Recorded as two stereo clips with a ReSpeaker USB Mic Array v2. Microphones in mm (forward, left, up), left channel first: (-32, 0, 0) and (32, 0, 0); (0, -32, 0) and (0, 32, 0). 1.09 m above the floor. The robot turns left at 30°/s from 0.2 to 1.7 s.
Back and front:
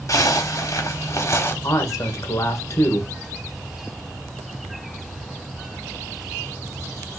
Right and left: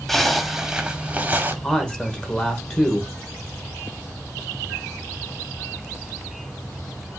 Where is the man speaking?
165° right, 1.4 m.